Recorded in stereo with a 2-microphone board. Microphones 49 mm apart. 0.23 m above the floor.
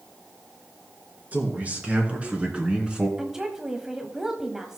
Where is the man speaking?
35° right (ahead or behind), 3.5 m; by 3.1 s 20° right (ahead or behind), 2.5 m.